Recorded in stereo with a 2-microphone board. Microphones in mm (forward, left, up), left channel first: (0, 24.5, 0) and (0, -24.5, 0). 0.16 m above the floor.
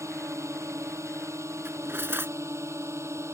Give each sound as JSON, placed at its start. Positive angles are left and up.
{"t": 0.0, "sound": "a drone", "side_deg": -70}
{"t": 1.6, "sound": "cutlery clinking", "side_deg": -45}